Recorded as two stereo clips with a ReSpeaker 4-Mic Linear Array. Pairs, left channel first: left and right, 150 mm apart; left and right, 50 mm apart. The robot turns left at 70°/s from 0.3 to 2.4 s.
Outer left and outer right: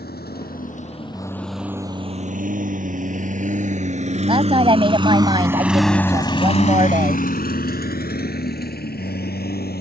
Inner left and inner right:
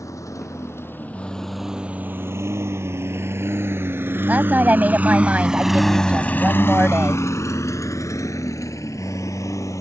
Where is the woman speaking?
35° right (ahead or behind).